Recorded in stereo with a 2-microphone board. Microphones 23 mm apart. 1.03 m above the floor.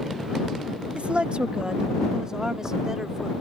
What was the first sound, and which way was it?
A woman speaking, 60° right (ahead or behind).